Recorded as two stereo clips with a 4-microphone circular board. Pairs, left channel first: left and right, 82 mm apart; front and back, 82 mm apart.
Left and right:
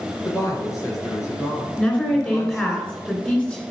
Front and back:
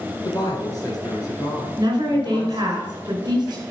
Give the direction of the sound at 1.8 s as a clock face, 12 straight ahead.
7 o'clock.